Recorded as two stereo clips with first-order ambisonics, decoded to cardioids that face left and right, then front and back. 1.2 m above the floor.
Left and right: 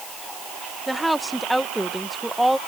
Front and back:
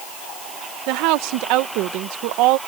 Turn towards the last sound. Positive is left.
turn(degrees=-175)